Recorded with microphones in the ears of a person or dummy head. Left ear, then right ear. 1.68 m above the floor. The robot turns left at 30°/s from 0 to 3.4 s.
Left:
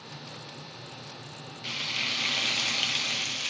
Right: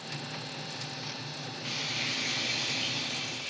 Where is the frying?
150° left, 1.0 m; by 3.5 s 100° left, 1.0 m.